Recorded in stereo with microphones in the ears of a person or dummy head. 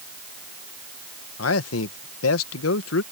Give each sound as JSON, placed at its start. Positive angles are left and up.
{"t": 1.4, "sound": "a man speaking", "side_deg": 85}